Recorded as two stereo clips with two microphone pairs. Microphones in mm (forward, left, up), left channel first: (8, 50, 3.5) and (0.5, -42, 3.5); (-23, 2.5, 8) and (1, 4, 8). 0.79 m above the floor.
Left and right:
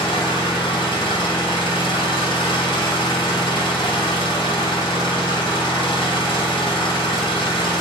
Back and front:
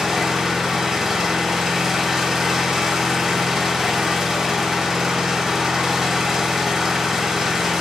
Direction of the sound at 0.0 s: 85° left.